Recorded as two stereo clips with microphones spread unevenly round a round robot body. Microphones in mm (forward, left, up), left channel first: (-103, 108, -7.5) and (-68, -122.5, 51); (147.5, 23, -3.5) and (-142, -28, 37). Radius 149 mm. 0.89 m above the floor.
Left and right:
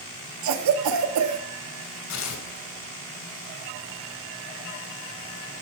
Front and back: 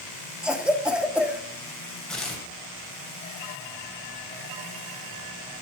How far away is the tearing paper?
About 3 m.